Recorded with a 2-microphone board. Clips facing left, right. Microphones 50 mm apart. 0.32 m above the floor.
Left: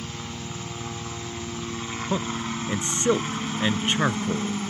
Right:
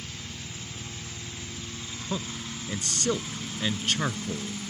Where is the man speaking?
25° left (ahead or behind).